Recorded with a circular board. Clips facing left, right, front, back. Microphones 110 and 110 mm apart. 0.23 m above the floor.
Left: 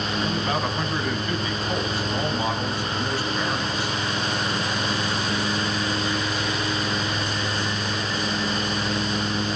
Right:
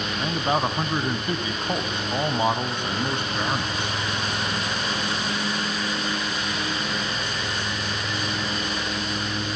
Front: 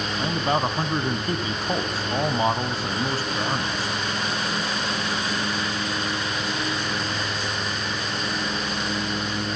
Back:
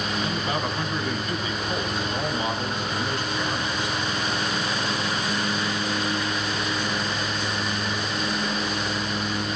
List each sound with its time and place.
0.2 s a man speaking: 35° right, 1.5 m